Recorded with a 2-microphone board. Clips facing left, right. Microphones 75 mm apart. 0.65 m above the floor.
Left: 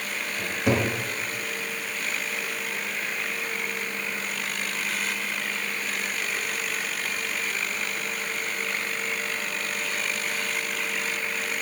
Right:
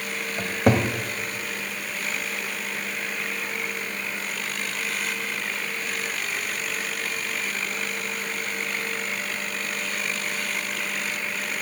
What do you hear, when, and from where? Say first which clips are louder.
0.4 s a cupboard door: right 4 dB; 55° right (ahead or behind), 1.9 m